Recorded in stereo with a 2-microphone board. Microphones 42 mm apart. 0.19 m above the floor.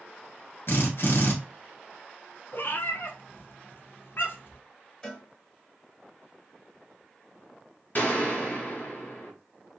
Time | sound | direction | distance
0.7 | a drill | 60° left (ahead or behind) | 1.4 m
2.5 | a cat meowing | 60° left (ahead or behind) | 0.6 m
5.0 | a cowbell | 15° left (ahead or behind) | 1.3 m
8.0 | a gunshot | 45° left (ahead or behind) | 1.2 m